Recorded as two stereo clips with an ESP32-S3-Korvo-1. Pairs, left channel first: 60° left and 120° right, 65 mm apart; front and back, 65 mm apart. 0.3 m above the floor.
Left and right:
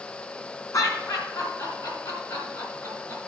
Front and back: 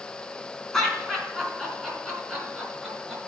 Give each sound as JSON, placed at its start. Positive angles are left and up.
{"t": 0.7, "sound": "laughter", "azimuth_deg": 85, "distance_m": 3.5}